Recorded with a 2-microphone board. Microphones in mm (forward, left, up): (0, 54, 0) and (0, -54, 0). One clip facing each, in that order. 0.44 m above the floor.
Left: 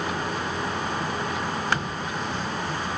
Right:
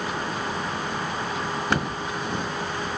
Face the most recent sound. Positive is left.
turn(degrees=-50)  # may be behind; listen again after turning